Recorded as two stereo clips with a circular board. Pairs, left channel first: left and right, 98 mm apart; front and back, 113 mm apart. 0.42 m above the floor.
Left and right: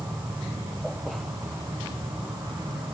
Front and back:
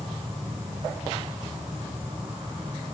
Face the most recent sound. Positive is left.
turn(degrees=-130)